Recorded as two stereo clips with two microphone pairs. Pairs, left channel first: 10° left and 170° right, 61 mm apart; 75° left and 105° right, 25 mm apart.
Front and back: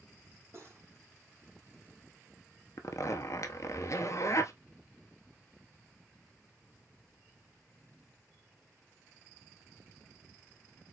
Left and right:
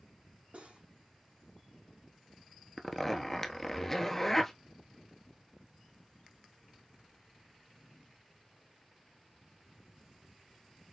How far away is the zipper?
About 0.8 m.